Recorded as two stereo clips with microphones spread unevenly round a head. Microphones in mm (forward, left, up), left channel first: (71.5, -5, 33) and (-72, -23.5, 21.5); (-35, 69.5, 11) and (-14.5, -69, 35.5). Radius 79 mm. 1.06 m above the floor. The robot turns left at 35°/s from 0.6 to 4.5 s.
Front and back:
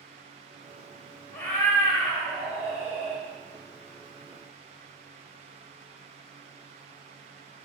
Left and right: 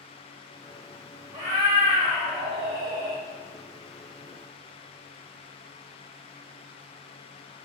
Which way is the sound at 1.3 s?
45° right.